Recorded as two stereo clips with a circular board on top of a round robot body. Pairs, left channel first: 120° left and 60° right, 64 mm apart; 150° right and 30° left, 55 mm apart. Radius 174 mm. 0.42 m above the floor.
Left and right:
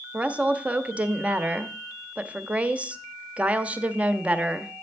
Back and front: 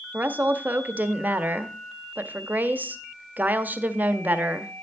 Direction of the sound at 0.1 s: 5° right.